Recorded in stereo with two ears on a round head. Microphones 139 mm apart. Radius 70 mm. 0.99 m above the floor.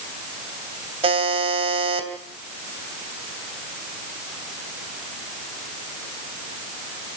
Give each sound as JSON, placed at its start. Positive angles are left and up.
{"t": 1.0, "sound": "a buzzer", "side_deg": -40, "distance_m": 2.5}